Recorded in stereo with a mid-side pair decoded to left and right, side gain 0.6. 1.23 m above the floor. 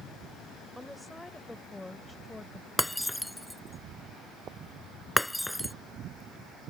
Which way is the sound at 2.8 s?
5° left.